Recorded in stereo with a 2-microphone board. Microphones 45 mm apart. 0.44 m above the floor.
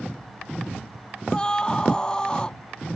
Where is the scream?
20° left (ahead or behind).